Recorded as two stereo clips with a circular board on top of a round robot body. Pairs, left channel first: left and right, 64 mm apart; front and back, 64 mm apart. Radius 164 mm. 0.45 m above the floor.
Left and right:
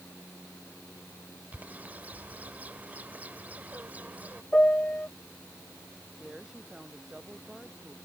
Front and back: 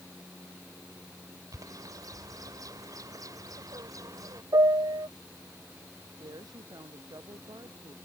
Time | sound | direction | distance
1.5 | a bird | 155° right | ?
4.5 | a piano | 160° left | ?
6.2 | a woman speaking | 170° right | ?